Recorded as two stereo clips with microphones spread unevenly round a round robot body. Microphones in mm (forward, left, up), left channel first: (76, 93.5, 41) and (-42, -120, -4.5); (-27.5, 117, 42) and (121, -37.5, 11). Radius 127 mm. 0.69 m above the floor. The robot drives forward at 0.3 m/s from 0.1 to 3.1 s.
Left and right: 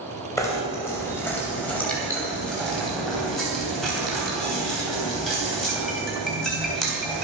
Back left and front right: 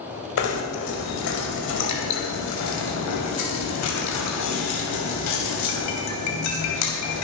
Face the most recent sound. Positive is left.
turn(degrees=150)